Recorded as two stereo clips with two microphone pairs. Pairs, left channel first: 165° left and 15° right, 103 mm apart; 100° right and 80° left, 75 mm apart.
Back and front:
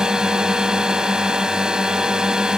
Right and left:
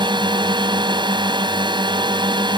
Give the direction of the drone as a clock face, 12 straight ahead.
10 o'clock.